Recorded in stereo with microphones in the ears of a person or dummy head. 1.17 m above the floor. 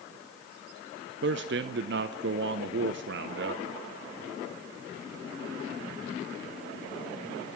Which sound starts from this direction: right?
A man speaking, at 1.2 s.